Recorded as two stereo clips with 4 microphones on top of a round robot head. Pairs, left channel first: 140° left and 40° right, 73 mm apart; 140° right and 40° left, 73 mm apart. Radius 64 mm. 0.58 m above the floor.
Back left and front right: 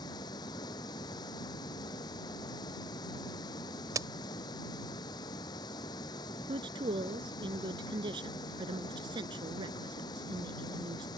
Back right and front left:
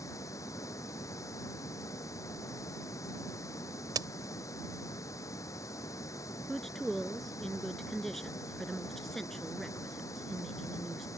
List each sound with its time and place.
0.0 s running water: 170° left
4.0 s a crack: 5° left
6.5 s a woman speaking: 55° right